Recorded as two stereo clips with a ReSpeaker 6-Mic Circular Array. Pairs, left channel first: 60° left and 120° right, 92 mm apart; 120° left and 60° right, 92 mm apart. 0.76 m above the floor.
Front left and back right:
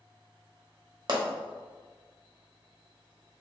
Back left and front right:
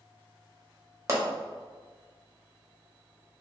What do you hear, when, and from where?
1.1 s a pop: 110° right, 1.2 m